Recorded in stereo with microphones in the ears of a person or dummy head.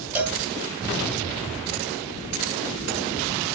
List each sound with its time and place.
0.1 s a cowbell: 15° right (ahead or behind), 1.6 m